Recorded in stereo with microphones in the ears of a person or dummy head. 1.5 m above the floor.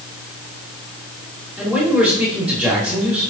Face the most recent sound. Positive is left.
turn(degrees=5)  # may be behind; listen again after turning